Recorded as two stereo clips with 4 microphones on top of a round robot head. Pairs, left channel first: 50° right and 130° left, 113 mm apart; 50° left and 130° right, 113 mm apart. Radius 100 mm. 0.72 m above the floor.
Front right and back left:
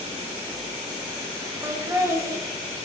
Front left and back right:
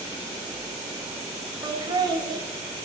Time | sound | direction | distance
1.6 | laughter | 170° right | 1.5 m